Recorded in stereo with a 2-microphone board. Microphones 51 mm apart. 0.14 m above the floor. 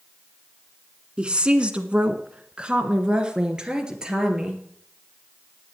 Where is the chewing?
No chewing in this recording.